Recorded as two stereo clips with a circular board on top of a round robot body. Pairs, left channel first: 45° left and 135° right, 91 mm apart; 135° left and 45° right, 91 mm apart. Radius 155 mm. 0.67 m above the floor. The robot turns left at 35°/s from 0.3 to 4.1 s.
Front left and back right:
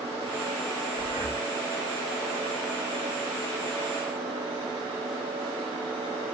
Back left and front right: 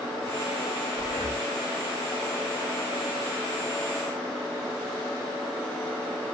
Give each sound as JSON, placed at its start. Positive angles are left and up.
{"t": 1.0, "sound": "breathing", "azimuth_deg": 160, "distance_m": 4.0}